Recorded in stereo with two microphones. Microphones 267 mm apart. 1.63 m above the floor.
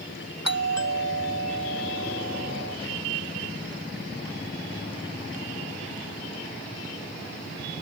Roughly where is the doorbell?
Left.